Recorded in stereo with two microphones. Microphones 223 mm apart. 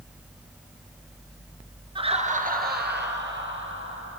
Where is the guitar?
I don't hear a guitar.